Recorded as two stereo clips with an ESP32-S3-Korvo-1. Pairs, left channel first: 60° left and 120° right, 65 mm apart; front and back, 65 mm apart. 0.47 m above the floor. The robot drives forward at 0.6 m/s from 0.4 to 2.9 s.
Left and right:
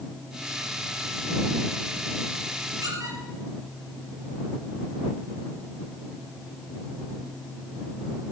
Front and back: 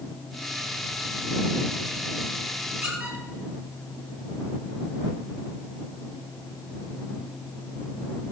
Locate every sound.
2.8 s a squeak: 110° right, 5.5 m